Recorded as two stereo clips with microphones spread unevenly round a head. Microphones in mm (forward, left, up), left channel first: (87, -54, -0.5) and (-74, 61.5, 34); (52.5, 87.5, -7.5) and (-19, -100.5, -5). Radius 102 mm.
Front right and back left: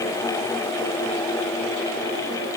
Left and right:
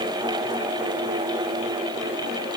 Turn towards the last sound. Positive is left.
No sound to turn to.